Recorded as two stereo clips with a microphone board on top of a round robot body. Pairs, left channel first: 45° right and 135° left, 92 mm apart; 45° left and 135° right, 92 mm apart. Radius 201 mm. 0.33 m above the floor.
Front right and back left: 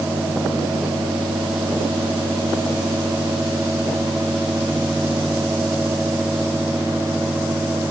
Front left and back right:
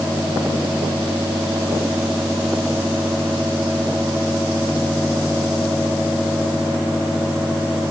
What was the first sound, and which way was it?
Only background noise.